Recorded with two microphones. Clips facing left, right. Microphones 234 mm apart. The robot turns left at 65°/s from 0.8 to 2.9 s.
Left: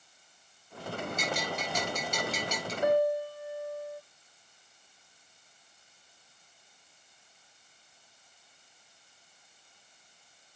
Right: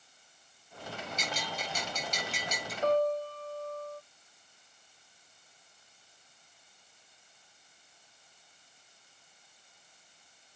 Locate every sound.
1.2 s a bell: 120° left, 5.5 m; by 2.7 s 20° left, 5.5 m
2.8 s a piano: 15° left (ahead or behind), 0.6 m; by 4.0 s 10° left (ahead or behind), 0.6 m